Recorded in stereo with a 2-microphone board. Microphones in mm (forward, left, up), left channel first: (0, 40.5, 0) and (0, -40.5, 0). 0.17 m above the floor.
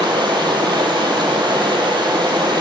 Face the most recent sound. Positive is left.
turn(degrees=-70)  # may be behind; listen again after turning